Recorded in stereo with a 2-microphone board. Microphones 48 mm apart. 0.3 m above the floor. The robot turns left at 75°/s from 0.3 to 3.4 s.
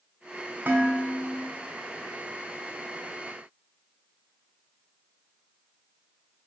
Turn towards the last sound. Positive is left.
turn(degrees=70)